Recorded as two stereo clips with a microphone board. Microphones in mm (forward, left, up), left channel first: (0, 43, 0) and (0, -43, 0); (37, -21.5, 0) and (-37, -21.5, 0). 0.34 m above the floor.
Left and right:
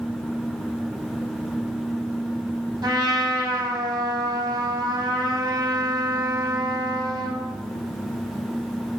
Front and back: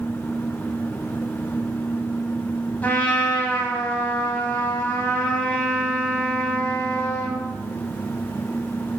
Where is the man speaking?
No man speaking in this recording.